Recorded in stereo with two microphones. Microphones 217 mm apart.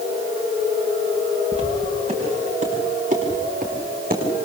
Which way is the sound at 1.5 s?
25° right (ahead or behind).